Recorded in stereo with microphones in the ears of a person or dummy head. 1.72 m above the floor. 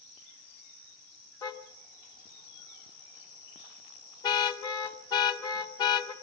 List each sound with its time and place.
1.4 s a car horn: 25° left (ahead or behind), 2.5 m